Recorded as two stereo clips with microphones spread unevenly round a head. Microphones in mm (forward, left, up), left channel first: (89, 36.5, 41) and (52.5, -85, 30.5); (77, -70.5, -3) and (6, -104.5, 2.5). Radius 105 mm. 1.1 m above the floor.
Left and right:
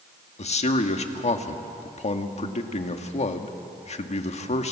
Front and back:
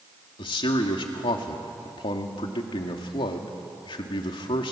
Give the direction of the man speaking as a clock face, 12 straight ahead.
11 o'clock.